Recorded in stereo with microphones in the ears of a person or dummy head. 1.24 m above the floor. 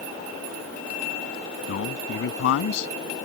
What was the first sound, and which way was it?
A man speaking, 75° left (ahead or behind).